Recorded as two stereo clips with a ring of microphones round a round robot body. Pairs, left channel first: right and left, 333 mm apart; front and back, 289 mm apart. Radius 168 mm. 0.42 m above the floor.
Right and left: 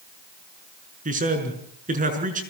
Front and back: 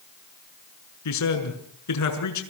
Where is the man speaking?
25° left, 6 m.